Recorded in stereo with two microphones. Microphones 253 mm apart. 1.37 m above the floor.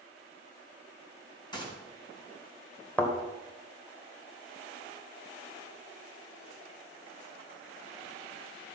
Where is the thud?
5° left (ahead or behind), 1.8 m.